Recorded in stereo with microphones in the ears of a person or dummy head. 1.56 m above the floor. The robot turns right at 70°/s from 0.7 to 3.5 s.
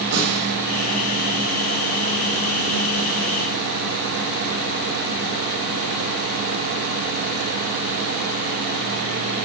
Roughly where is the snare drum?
Right.